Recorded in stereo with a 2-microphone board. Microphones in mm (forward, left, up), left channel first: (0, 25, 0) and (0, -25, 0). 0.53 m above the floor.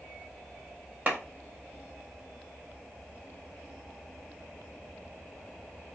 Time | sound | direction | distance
1.1 | a clap | 30° right (ahead or behind) | 0.9 m